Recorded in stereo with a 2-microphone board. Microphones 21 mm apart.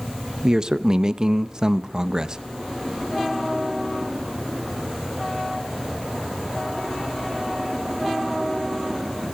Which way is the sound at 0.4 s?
30° right (ahead or behind).